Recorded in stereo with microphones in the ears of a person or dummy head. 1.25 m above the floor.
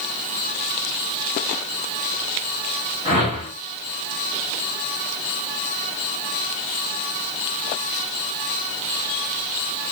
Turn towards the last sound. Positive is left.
turn(degrees=-30)  # may be behind; listen again after turning